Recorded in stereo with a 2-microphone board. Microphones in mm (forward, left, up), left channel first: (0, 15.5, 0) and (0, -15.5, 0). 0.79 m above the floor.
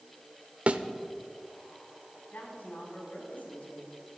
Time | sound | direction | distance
0.7 | a thud | 50° right (ahead or behind) | 0.8 m
2.3 | a woman speaking | 85° left | 6 m